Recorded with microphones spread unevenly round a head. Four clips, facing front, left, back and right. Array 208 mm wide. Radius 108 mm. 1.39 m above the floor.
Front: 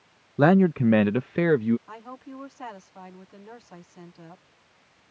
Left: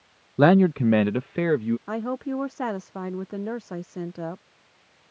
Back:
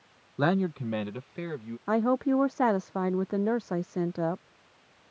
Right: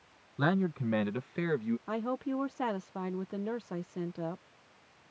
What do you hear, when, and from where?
0.4 s a man speaking: 65° left; by 1.8 s 30° left
1.9 s a woman speaking: 160° left